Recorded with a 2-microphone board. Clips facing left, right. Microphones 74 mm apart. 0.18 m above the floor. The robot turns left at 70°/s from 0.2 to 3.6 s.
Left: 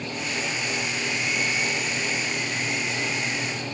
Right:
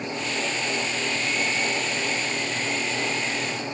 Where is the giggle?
No giggle in this recording.